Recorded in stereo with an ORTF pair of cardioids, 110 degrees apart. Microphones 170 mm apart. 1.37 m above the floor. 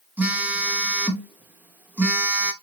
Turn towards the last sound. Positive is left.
turn(degrees=-10)